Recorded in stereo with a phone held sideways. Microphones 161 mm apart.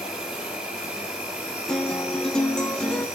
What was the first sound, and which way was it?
An insect, 5° right (ahead or behind).